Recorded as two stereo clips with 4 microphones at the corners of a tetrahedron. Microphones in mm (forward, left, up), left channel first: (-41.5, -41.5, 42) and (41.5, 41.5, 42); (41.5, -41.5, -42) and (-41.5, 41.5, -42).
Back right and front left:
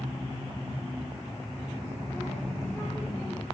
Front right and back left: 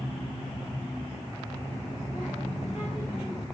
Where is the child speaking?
70° right, 6.5 m; by 3.5 s 80° right, 7.5 m.